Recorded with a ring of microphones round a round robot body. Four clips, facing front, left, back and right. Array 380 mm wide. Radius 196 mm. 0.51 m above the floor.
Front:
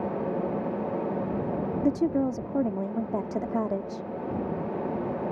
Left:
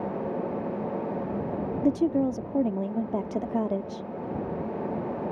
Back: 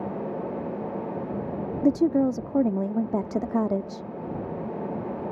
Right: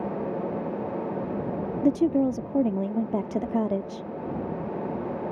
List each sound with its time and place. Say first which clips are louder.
1.8 s a woman speaking: right 2 dB, back 5 dB; 155° right